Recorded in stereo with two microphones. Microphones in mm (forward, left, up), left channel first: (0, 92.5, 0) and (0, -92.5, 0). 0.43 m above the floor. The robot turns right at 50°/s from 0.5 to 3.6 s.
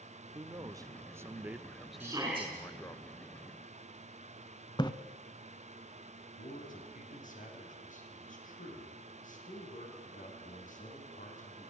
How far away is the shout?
About 4.5 m.